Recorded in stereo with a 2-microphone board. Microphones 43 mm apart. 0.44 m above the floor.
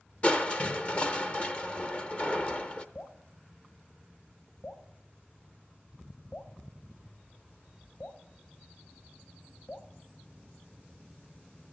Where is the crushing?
30° left (ahead or behind), 0.6 m.